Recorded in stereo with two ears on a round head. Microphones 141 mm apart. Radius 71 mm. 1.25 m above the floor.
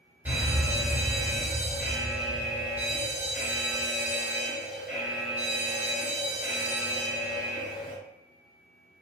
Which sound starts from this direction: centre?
A fire alarm, at 0.2 s.